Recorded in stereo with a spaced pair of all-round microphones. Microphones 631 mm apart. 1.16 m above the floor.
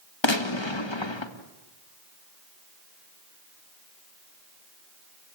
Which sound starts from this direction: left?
A gunshot, at 0.2 s.